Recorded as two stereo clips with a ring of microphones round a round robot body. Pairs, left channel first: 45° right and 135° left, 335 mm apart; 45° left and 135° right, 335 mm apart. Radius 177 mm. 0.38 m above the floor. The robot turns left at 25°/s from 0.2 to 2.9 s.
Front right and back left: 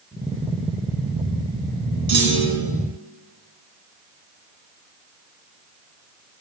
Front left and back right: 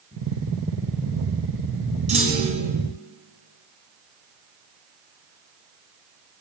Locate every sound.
2.1 s a clunk: 155° left, 3 m; by 2.7 s 140° left, 3 m